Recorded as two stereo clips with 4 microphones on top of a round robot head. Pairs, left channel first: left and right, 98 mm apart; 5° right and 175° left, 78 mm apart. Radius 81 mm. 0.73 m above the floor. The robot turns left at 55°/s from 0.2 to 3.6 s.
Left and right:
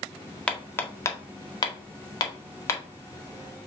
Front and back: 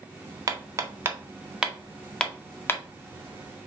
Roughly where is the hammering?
Behind.